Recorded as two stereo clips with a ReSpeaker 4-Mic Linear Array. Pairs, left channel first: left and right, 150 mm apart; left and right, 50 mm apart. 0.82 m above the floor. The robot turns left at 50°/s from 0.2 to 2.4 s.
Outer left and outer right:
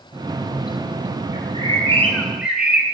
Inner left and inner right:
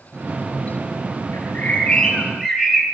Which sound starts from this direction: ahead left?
A bird, at 1.3 s.